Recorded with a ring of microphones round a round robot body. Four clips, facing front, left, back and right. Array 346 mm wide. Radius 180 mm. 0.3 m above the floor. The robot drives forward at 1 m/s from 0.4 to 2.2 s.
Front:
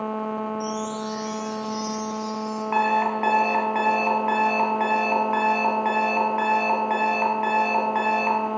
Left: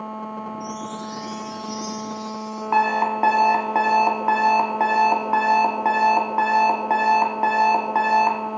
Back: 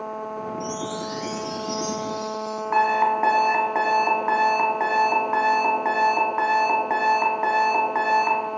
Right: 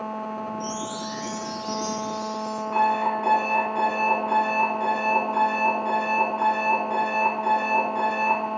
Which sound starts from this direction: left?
An alarm clock, at 2.7 s.